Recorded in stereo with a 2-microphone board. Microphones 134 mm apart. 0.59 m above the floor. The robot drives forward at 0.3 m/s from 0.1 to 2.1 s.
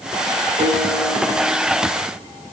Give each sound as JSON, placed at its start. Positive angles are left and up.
{"t": 0.6, "sound": "a piano", "side_deg": -65, "distance_m": 2.5}